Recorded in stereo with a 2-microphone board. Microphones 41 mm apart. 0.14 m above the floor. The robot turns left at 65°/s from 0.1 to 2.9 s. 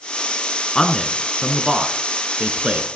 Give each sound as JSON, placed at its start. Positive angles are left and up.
{"t": 0.8, "sound": "a man speaking", "side_deg": 20, "distance_m": 1.3}